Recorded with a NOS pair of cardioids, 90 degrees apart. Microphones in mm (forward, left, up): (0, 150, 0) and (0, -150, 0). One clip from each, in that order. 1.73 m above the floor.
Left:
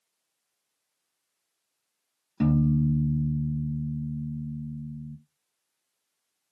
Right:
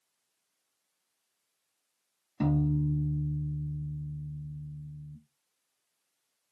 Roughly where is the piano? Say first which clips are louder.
Left 4 dB; ahead.